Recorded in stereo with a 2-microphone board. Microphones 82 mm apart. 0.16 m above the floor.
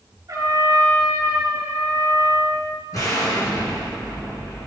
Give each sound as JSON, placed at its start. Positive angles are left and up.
{"t": 0.3, "sound": "a trumpet", "side_deg": -50, "distance_m": 2.5}
{"t": 2.9, "sound": "an explosion", "side_deg": 50, "distance_m": 3.0}